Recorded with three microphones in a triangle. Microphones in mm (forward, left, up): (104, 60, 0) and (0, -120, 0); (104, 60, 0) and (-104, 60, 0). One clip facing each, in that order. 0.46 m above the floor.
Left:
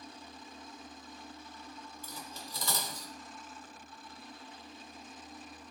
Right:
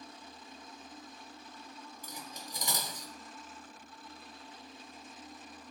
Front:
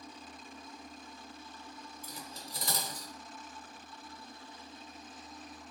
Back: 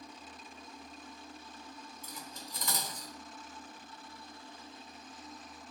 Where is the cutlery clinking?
50° right, 0.7 m.